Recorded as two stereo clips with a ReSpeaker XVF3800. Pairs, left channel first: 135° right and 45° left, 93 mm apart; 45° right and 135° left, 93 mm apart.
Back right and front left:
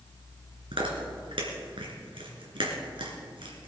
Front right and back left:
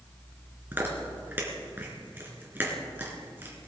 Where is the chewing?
65° left, 3 m.